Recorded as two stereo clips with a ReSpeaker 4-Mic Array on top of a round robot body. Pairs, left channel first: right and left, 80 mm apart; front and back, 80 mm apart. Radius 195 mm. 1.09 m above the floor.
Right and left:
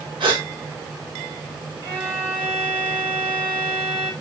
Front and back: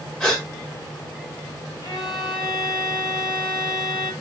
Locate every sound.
0.2 s a gasp: 80° left, 2 m
1.8 s a violin: 40° left, 4 m